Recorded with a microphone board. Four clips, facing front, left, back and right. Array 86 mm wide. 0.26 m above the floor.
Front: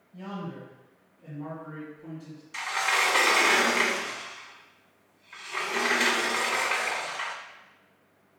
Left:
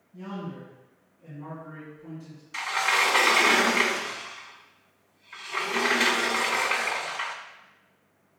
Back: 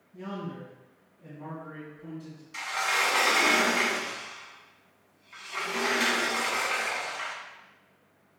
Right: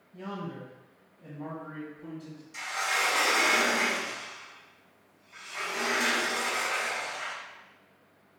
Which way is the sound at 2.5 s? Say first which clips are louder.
Left 5 dB, front 2 dB; 70° left.